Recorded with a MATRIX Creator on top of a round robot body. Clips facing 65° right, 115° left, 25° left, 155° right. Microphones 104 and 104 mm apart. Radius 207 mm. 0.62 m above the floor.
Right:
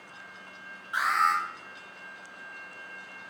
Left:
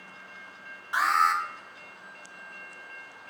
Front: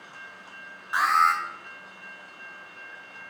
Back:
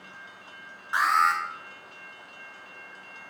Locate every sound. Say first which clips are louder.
0.9 s an alarm: left 2 dB, front 1 dB; 110° left, 2.5 m